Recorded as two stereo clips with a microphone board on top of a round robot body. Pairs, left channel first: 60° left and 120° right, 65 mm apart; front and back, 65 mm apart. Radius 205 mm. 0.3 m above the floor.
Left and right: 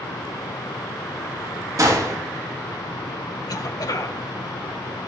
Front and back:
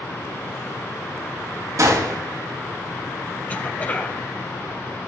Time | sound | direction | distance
1.8 | a gunshot | 150° right | 3.5 m
3.5 | a cough | 65° left | 2.5 m